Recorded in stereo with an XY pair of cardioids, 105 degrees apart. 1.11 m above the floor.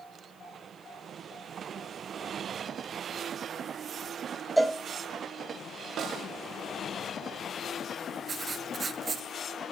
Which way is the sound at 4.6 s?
5° right.